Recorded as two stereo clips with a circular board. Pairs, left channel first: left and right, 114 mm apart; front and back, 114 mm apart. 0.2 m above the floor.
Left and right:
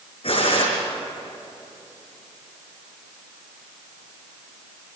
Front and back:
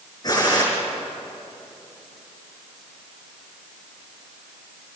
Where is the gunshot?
55° left, 6 m.